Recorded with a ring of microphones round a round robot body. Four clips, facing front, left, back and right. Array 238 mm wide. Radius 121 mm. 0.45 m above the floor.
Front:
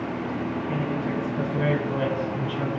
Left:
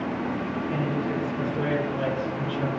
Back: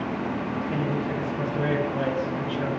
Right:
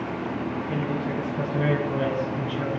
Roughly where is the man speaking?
Ahead right.